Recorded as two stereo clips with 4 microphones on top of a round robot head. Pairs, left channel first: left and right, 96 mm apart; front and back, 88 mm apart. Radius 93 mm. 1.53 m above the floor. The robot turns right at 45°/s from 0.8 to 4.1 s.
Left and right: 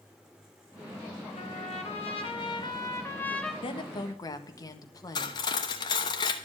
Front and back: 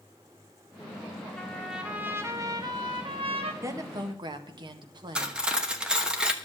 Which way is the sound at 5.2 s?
105° left.